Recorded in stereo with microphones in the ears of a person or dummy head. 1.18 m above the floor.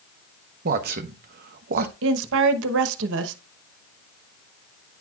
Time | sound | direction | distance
0.7 | a man speaking | 50° right (ahead or behind) | 0.9 m
2.0 | a woman speaking | 70° right (ahead or behind) | 1.0 m